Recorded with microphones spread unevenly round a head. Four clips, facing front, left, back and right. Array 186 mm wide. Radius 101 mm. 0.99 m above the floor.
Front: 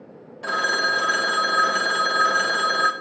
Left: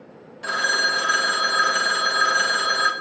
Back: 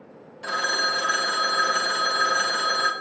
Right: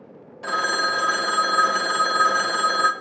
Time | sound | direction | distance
0.4 | a phone ringing | 10° right | 0.5 m